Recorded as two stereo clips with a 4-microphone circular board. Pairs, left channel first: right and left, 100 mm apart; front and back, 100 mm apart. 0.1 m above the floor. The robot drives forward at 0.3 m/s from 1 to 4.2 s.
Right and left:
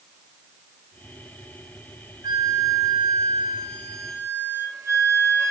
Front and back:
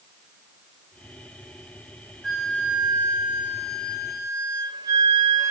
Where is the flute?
90° left, 0.8 m; by 5.5 s 140° left, 1.0 m.